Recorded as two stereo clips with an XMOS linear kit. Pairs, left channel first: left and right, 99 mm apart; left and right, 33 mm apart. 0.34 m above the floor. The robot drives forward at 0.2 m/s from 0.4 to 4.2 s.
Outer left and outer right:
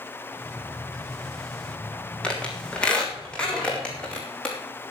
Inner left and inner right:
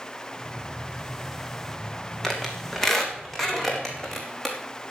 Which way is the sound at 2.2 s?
10° left (ahead or behind).